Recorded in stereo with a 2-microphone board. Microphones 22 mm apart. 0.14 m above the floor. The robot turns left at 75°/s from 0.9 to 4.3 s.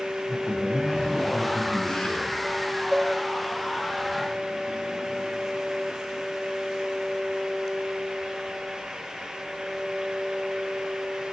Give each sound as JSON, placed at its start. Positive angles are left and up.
{"t": 0.3, "sound": "a man speaking", "azimuth_deg": -155, "distance_m": 7.5}
{"t": 2.9, "sound": "dishes clattering", "side_deg": -10, "distance_m": 1.1}